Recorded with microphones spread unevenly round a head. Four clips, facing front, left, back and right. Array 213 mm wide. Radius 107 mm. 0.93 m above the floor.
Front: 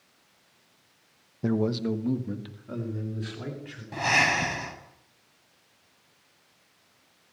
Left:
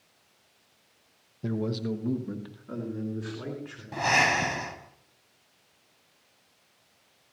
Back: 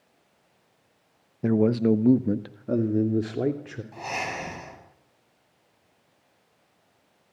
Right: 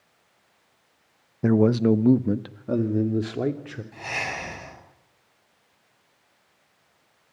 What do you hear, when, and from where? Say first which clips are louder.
1.4 s a man speaking: right 12 dB, back 6 dB; 100° right, 0.8 m; by 3.8 s 135° right, 3.5 m
3.9 s breathing: left 9 dB, front 7 dB; 45° left, 8 m